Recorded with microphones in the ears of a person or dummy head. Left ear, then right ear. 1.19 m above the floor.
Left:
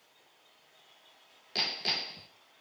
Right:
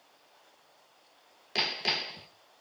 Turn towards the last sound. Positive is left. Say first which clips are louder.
# right 2 dB
turn(degrees=-15)  # may be behind; listen again after turning